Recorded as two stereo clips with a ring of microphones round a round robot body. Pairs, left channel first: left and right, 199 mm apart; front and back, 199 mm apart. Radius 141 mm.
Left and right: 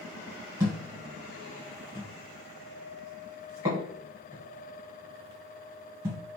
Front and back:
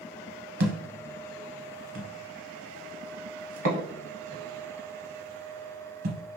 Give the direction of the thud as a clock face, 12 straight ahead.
6 o'clock.